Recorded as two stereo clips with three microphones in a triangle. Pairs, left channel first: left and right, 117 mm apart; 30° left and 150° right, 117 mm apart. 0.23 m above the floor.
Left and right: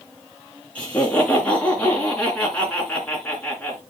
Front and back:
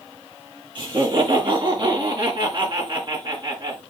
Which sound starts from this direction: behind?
Laughter, at 0.8 s.